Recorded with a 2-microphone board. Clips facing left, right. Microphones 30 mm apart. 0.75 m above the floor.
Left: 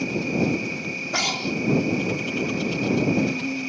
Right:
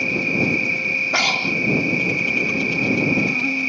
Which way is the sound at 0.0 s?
40° right (ahead or behind).